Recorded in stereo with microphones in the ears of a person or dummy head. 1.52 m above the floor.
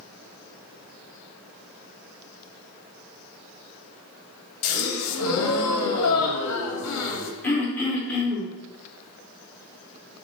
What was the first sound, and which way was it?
A gasp, 85° left.